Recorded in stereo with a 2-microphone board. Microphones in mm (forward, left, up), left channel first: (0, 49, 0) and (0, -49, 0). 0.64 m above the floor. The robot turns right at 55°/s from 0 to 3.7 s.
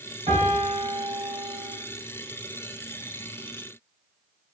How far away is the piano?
About 1.6 m.